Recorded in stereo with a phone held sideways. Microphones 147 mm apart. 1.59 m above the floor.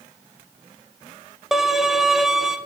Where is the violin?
Centre (ahead or behind), 0.7 m.